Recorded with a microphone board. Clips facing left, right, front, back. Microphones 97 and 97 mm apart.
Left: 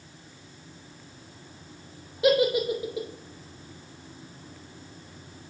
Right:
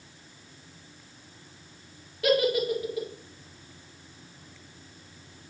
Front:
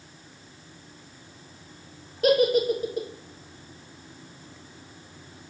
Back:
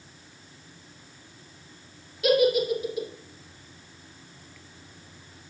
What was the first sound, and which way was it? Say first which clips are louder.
A giggle: left 2 dB, front 1 dB; 30° left.